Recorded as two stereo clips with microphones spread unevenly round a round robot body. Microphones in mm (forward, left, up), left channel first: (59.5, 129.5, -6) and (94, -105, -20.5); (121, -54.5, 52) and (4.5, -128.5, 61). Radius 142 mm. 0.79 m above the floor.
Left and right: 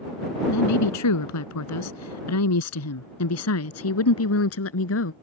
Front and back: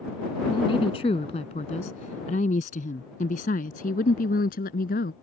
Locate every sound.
0.5 s a woman speaking: 105° left; by 5.1 s 70° left